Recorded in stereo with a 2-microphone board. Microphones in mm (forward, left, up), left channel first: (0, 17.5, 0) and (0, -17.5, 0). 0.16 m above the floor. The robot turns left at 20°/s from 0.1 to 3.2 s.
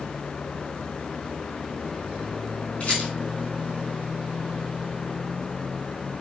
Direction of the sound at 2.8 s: 40° left (ahead or behind).